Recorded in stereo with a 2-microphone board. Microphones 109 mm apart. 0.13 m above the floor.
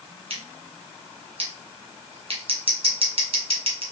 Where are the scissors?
55° right (ahead or behind), 1.7 m.